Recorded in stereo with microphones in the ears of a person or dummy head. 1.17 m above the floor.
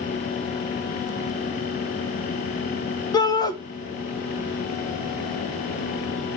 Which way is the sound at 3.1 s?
25° left (ahead or behind).